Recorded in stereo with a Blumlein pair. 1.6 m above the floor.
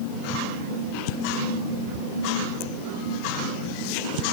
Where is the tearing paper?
I don't hear tearing paper.